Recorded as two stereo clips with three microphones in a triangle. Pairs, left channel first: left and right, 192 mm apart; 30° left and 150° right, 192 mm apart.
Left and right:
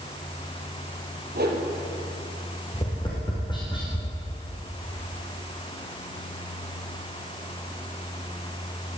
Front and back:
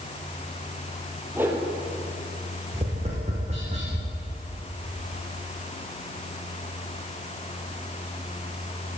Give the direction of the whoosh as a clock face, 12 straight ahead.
2 o'clock.